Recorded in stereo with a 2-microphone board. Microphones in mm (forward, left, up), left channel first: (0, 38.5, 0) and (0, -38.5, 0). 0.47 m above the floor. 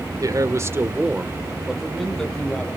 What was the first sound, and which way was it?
A man speaking, 50° right (ahead or behind).